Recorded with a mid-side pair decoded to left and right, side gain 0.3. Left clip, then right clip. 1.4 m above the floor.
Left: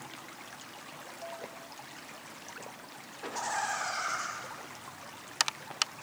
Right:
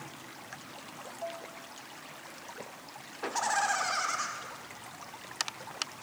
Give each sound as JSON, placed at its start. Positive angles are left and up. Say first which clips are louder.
{"t": 1.2, "sound": "dishes clattering", "louder": "right 3 dB", "azimuth_deg": -65, "distance_m": 4.0}
{"t": 3.2, "sound": "laughter", "louder": "right 4 dB", "azimuth_deg": -65, "distance_m": 3.5}